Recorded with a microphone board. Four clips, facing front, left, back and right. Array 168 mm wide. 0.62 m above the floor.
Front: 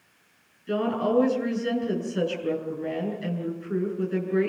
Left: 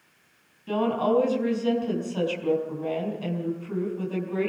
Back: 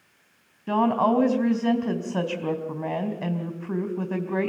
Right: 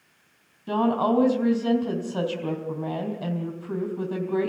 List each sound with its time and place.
0.7 s a woman speaking: 155° right, 4.5 m